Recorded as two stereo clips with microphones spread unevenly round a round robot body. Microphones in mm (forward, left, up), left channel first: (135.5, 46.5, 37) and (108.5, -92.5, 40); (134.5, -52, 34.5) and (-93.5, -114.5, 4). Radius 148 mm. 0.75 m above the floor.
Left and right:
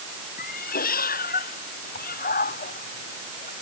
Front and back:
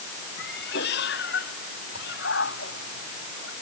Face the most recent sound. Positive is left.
turn(degrees=70)